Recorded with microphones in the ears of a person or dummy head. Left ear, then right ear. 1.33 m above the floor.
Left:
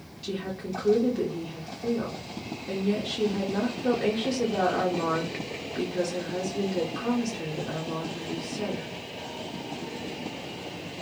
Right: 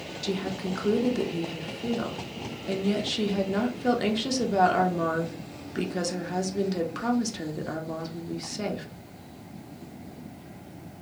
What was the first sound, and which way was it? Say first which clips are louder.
A woman speaking: right 2 dB; 25° right (ahead or behind).